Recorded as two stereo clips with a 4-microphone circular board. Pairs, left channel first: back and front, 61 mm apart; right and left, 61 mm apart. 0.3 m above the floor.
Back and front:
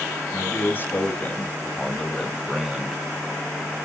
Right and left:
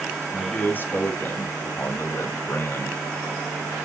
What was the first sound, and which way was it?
A man speaking, 145° right.